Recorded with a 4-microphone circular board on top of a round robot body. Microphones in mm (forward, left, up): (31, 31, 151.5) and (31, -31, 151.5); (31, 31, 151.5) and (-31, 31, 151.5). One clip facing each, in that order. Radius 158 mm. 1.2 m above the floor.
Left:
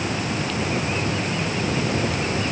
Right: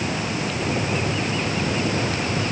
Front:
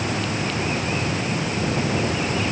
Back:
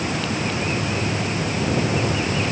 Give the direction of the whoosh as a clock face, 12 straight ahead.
No whoosh in this recording.